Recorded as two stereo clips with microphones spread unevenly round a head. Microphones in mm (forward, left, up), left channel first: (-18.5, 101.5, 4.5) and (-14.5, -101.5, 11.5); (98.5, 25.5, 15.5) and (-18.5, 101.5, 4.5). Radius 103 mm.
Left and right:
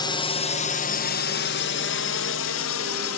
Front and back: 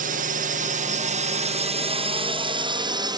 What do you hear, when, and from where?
0.0 s a drone: 160° left; by 3.2 s 90° left